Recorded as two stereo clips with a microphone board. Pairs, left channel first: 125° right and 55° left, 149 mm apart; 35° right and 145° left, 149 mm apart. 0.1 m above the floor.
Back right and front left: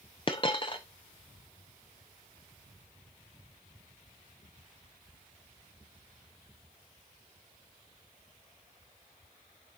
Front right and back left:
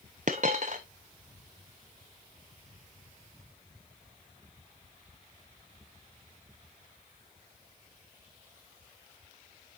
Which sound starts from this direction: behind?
A dropped coin, at 0.3 s.